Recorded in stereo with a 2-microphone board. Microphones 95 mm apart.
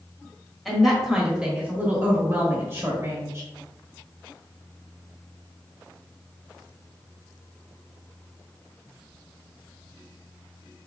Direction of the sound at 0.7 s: Centre (ahead or behind).